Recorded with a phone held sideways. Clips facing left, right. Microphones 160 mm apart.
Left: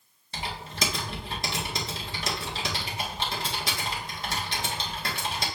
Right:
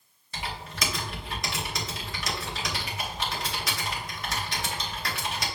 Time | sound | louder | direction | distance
0.3 | typing on a keyboard | left 1 dB | 30° left (ahead or behind) | 1.2 m